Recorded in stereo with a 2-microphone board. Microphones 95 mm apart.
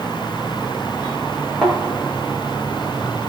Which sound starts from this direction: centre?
A thud, at 1.6 s.